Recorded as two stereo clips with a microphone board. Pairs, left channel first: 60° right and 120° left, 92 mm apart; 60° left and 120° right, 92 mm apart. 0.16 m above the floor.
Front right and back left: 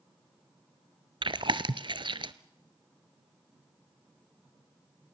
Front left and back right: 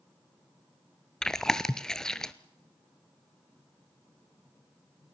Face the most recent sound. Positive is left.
turn(degrees=145)